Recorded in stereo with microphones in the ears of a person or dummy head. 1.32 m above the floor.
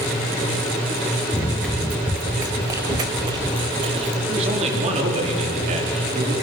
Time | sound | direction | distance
1.3 | running footsteps | 15° left (ahead or behind) | 1.4 m
4.3 | a man speaking | 40° right (ahead or behind) | 3.5 m